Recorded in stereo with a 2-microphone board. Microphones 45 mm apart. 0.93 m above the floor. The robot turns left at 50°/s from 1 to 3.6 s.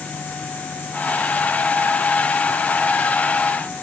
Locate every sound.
Only background noise.